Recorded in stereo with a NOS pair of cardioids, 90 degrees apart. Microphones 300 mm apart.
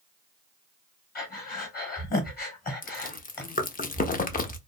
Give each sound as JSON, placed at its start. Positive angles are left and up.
{"t": 1.1, "sound": "breathing", "azimuth_deg": 30, "distance_m": 1.2}
{"t": 2.8, "sound": "chewing", "azimuth_deg": 30, "distance_m": 0.6}